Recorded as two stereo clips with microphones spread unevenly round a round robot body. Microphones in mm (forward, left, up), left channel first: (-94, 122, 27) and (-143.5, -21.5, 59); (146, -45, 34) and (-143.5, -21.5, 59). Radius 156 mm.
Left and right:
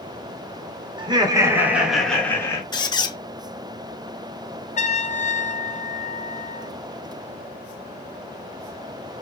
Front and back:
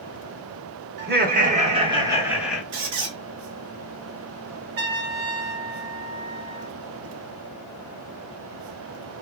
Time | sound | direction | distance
1.0 | laughter | 165° right | 1.0 m
2.7 | a squeak | 140° left | 0.6 m
4.8 | a trumpet | 115° left | 0.6 m